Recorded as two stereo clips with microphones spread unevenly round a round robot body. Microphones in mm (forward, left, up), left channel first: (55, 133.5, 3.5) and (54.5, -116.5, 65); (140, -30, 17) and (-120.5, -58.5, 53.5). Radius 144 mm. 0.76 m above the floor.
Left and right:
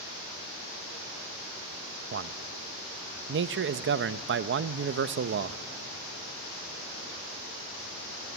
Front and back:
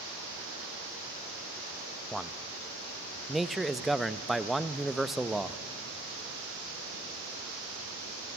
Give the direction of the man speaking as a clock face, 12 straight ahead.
2 o'clock.